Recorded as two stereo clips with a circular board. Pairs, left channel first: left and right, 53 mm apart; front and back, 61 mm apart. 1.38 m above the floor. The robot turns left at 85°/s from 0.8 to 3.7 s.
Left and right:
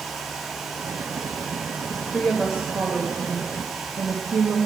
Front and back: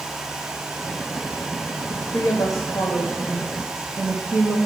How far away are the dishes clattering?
No dishes clattering in this recording.